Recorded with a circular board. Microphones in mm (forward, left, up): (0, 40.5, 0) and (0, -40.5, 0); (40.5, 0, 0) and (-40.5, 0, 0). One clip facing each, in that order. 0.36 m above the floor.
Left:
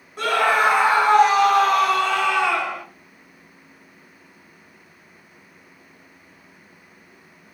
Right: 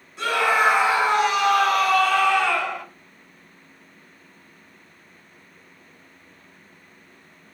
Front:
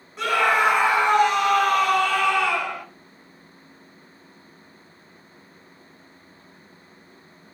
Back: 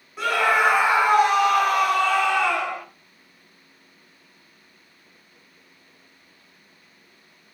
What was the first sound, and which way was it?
A scream, 95° left.